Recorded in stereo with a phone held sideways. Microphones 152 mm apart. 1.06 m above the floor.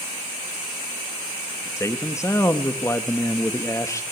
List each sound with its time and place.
1.8 s a man speaking: 20° left (ahead or behind), 1.6 m